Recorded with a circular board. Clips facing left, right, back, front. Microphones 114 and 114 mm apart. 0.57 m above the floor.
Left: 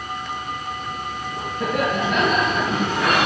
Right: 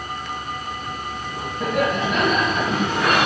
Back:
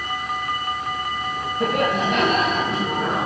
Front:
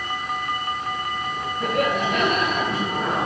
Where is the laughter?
175° right, 4.5 m.